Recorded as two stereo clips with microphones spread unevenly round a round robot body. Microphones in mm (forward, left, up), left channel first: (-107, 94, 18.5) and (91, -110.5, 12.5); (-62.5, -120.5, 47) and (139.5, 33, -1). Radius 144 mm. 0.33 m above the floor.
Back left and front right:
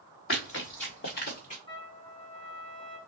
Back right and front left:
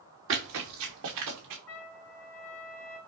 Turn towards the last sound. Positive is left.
turn(degrees=-150)